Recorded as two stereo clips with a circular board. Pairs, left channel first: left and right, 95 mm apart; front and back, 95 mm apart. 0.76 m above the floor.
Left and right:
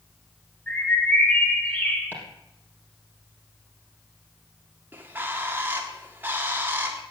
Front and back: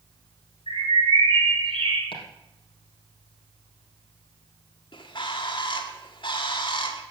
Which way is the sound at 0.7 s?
165° left.